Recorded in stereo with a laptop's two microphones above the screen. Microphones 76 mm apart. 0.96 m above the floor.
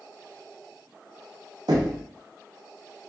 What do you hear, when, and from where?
1.7 s knocking: 70° right (ahead or behind), 0.8 m